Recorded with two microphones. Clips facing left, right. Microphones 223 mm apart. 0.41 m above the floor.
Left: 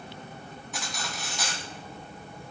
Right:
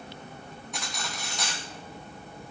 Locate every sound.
0.7 s cutlery clinking: centre (ahead or behind), 1.7 m